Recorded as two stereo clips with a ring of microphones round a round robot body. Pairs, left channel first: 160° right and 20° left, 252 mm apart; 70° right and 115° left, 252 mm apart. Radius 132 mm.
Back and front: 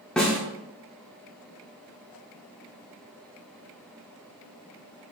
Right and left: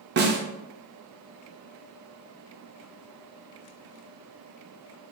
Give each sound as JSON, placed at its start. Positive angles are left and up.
{"t": 0.2, "sound": "a snare drum", "azimuth_deg": 115, "distance_m": 0.5}